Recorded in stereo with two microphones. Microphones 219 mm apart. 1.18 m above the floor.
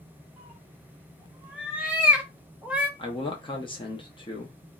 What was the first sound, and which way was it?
A cat meowing, 5° right (ahead or behind).